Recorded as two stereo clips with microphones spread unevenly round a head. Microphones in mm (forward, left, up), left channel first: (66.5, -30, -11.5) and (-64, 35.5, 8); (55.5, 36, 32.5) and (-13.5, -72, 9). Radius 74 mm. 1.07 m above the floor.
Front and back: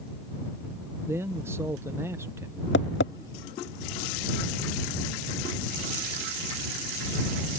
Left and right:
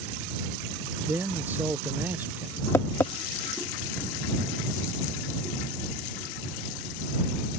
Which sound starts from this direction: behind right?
A man speaking, at 1.1 s.